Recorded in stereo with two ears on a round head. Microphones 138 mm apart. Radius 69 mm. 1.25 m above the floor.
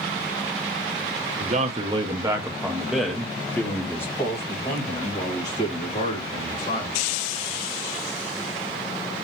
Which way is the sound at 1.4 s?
50° right (ahead or behind).